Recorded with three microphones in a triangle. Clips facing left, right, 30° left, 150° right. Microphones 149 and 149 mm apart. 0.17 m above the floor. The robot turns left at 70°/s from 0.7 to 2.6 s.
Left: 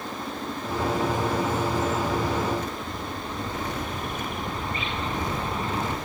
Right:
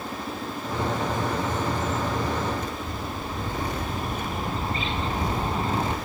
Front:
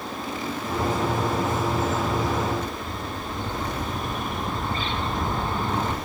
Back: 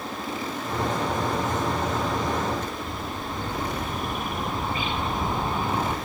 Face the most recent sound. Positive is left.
turn(degrees=-80)